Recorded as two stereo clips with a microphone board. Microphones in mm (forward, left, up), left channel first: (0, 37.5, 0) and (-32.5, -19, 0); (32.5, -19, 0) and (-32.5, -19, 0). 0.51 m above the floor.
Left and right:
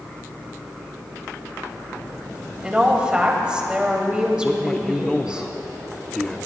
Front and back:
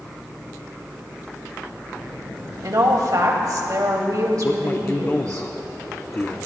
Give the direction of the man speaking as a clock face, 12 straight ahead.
12 o'clock.